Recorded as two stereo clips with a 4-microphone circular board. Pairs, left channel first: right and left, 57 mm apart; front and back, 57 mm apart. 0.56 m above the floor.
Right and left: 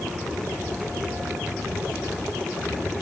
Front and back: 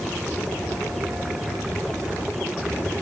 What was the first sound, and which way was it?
Only background noise.